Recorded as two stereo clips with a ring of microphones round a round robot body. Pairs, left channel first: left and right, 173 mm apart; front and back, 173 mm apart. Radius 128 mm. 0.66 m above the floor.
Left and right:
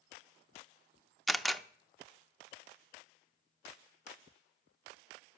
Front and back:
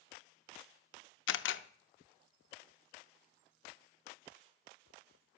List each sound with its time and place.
1.3 s a camera shutter: straight ahead, 0.6 m